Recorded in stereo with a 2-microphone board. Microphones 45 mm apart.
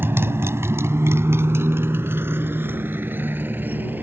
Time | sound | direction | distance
0.0 | a motorcycle | 60° right (ahead or behind) | ?